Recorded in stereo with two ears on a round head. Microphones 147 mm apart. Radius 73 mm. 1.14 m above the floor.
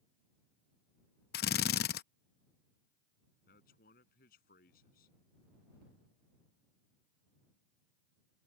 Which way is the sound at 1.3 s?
65° left (ahead or behind).